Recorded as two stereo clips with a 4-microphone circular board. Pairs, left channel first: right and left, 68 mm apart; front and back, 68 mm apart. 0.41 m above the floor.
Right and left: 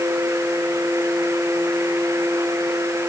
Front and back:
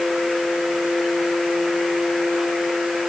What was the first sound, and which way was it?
Only background noise.